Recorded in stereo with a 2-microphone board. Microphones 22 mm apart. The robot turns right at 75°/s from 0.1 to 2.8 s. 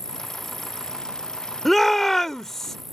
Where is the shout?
10° left (ahead or behind); by 2.8 s 20° left (ahead or behind).